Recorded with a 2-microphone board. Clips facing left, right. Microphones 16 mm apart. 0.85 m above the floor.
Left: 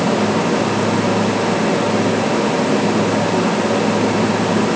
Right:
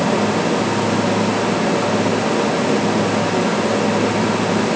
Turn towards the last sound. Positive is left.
No sound to turn to.